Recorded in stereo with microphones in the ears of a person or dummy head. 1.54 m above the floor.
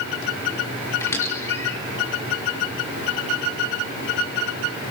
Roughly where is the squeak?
Centre.